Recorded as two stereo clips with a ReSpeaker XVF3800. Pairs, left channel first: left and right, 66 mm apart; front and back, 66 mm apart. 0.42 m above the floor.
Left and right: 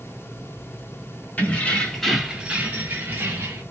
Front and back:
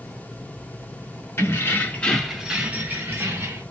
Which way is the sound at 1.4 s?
35° left.